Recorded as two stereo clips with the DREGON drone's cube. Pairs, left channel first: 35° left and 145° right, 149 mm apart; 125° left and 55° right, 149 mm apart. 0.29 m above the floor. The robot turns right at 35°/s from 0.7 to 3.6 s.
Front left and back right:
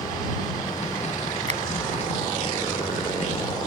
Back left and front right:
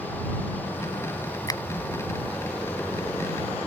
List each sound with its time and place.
1.5 s a finger snap: straight behind; by 1.6 s 175° right